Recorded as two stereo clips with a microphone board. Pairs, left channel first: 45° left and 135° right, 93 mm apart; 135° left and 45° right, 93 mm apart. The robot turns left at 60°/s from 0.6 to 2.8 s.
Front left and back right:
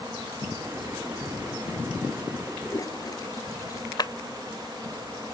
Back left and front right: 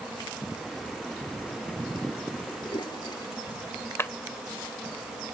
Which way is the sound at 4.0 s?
75° left.